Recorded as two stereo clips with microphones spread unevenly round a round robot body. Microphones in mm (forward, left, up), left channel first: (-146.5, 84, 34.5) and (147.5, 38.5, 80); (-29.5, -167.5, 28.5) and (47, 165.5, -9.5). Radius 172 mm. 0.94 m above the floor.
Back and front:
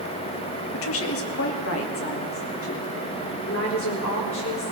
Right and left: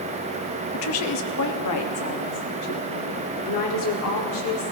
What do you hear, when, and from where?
0.7 s a woman speaking: 155° right, 0.9 m; by 4.7 s 140° right, 3.5 m